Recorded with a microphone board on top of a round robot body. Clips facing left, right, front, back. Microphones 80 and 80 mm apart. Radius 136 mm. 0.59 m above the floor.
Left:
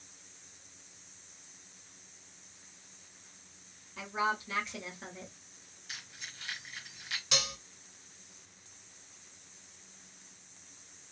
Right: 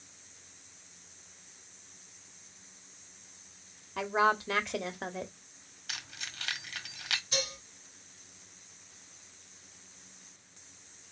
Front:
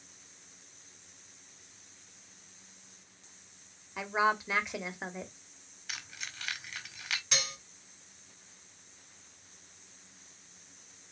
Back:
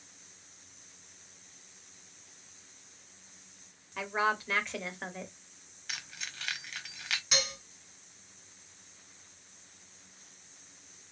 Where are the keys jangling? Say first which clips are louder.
Right 4 dB, back 1 dB; 85° right, 1.6 m.